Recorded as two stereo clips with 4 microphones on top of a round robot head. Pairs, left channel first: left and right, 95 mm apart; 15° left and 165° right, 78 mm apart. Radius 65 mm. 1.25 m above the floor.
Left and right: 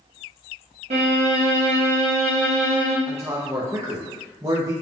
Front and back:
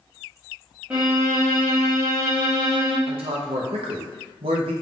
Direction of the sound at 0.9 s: 90° right.